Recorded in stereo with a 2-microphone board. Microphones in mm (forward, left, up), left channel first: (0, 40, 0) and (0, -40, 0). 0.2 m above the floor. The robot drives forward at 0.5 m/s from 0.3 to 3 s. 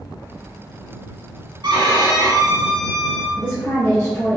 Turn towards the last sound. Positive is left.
turn(degrees=20)  # may be behind; listen again after turning